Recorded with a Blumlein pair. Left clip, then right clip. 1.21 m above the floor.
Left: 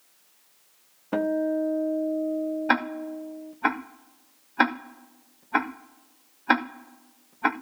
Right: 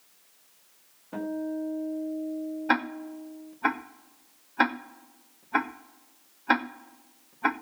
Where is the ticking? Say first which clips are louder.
Even; 10° left, 2 m.